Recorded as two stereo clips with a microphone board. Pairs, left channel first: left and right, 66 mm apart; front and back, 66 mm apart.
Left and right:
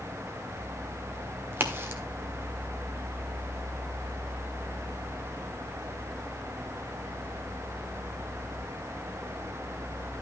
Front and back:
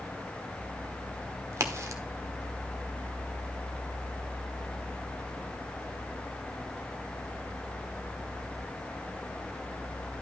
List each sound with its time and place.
1.5 s a crack: 140° right, 1.5 m